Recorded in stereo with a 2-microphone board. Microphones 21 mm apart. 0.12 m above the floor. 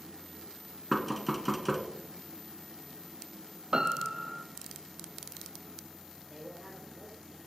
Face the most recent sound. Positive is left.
turn(degrees=-5)  # may be behind; listen again after turning